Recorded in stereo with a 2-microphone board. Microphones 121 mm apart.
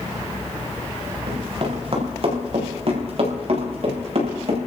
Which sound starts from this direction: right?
Running footsteps, at 1.3 s.